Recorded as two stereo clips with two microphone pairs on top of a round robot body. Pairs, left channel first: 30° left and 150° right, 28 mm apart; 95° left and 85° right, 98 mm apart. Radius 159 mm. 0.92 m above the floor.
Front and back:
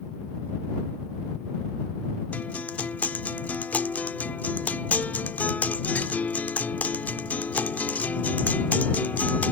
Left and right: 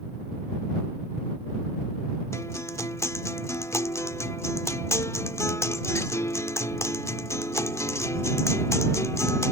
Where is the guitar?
30° left.